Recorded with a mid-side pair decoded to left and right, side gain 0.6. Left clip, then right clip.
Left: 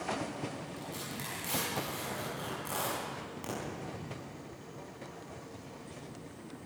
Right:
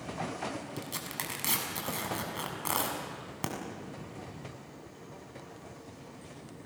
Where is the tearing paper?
55° right, 6.5 m.